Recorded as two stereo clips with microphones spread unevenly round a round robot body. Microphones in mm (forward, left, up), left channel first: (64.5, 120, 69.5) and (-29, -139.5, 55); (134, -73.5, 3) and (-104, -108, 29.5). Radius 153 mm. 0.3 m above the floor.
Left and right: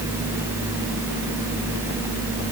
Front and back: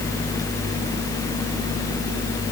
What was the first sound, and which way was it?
Only background noise.